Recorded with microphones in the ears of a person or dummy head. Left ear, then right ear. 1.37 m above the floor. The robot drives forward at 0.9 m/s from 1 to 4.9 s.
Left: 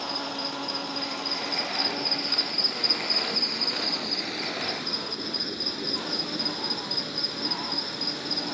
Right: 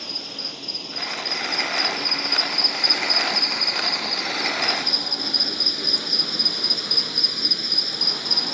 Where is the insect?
15° right (ahead or behind); by 8.5 s 25° right (ahead or behind).